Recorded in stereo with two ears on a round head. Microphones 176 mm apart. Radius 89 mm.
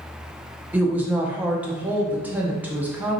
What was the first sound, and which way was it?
A woman speaking, 10° right (ahead or behind).